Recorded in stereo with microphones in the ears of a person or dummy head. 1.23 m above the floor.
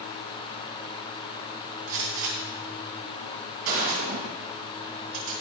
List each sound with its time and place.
1.9 s a gunshot: 55° right (ahead or behind), 2.5 m